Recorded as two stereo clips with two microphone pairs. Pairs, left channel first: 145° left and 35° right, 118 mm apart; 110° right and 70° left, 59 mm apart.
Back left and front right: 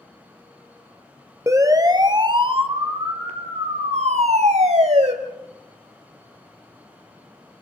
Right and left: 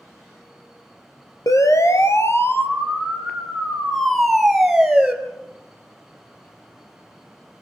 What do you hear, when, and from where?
1.5 s a siren: 100° right, 2.5 m; by 5.1 s 10° right, 3.5 m